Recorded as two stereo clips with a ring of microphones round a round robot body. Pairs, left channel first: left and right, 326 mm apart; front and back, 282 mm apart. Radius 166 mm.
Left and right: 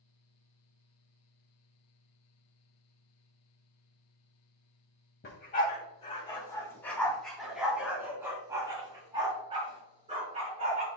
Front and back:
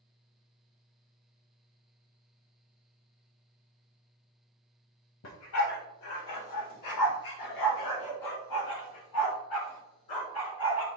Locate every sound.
5.2 s a dog barking: 30° left, 2.0 m; by 10.9 s 20° right, 4.5 m